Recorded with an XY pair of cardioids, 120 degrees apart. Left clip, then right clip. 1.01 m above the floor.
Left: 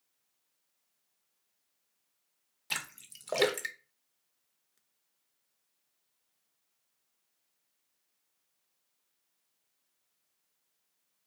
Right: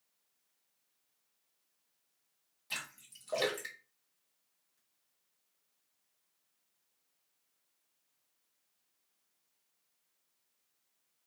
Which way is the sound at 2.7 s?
50° left.